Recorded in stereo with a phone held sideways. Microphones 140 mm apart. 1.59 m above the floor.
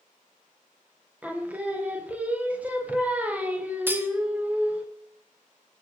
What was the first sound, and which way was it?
Singing, 10° right (ahead or behind).